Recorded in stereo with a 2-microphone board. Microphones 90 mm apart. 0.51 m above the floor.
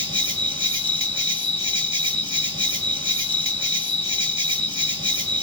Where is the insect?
70° right (ahead or behind), 1.7 m.